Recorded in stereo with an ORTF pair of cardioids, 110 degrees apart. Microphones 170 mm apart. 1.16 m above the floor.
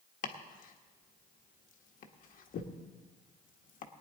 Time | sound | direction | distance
0.2 | chopping | 55° left | 1.3 m